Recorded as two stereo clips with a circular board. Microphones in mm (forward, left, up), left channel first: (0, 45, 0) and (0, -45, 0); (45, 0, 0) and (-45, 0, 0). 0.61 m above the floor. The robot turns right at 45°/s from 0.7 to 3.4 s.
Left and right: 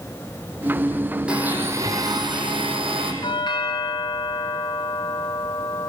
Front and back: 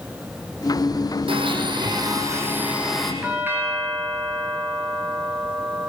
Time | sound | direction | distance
1.3 | a blender | 170° right | 5 m
3.2 | a doorbell | 105° left | 3.5 m